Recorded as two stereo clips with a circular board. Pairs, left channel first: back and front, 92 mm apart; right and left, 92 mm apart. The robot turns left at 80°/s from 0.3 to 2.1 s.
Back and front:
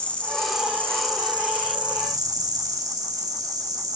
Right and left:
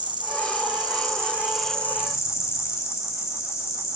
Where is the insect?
105° left, 2.5 m; by 4.0 s 40° right, 2.5 m.